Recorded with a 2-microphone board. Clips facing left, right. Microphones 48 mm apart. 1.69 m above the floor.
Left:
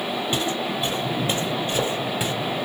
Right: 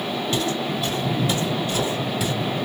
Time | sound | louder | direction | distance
0.3 | footsteps | right 2 dB | 20° left (ahead or behind) | 2 m